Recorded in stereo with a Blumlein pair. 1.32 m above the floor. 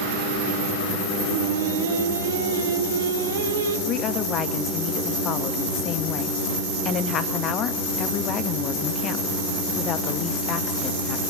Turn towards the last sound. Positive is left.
turn(degrees=30)